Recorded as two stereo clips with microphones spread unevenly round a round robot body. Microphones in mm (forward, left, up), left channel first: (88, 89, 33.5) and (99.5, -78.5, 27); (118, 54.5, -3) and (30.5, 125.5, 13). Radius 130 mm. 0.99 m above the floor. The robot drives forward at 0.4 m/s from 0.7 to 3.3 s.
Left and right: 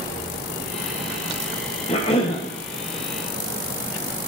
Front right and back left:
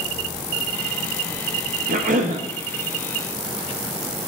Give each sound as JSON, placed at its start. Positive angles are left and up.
{"t": 1.9, "sound": "a cough", "azimuth_deg": 160, "distance_m": 0.7}